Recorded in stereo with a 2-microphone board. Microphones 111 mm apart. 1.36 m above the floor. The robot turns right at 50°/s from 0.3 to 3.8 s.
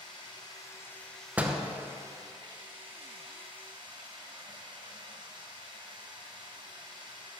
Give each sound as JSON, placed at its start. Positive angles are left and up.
{"t": 0.0, "sound": "running water", "azimuth_deg": 125, "distance_m": 1.9}
{"t": 1.4, "sound": "a door slam", "side_deg": -15, "distance_m": 0.6}